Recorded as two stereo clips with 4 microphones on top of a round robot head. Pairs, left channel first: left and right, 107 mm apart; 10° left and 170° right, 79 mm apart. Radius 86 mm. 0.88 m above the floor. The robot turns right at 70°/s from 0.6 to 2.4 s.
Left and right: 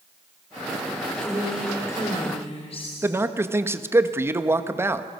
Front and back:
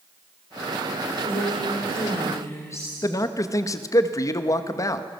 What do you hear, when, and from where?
1.2 s a woman speaking: 25° right, 4 m; by 3.0 s 60° left, 4 m
3.0 s a man speaking: 25° right, 1.5 m